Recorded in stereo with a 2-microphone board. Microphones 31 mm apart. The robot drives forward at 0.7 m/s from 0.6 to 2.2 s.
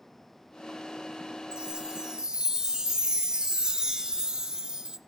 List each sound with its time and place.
1.5 s a chime: 30° right (ahead or behind), 0.8 m; by 5.0 s 25° right (ahead or behind), 0.9 m